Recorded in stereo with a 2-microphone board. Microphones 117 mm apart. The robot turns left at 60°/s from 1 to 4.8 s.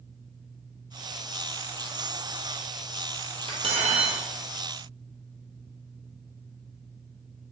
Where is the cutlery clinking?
55° right, 1.5 m; by 4.2 s 100° right, 1.5 m.